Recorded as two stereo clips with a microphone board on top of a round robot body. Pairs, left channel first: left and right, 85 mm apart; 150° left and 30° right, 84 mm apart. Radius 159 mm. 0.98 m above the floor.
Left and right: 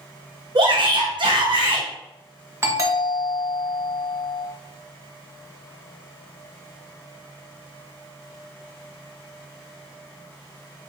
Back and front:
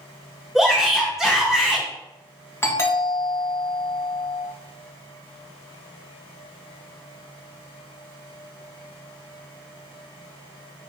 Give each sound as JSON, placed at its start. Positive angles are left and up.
{"t": 0.6, "sound": "a shout", "azimuth_deg": -120, "distance_m": 2.0}
{"t": 2.6, "sound": "a doorbell", "azimuth_deg": -150, "distance_m": 3.0}